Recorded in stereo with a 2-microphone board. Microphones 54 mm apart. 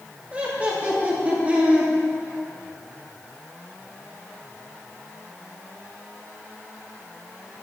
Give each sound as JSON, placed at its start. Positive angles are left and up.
{"t": 0.3, "sound": "laughter", "side_deg": -25, "distance_m": 3.0}